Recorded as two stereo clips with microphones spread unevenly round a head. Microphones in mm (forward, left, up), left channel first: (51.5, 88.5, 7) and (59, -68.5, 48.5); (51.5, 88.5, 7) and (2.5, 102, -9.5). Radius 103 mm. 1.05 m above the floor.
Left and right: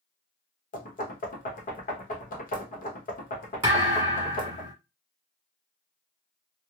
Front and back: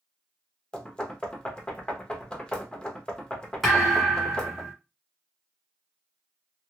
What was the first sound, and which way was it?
Knocking, 60° left.